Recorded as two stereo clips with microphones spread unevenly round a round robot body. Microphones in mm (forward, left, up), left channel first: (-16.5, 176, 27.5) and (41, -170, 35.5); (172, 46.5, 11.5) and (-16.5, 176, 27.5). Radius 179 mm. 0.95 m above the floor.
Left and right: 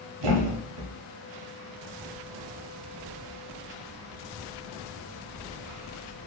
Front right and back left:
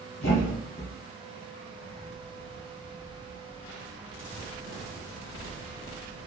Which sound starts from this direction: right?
A thud, at 0.2 s.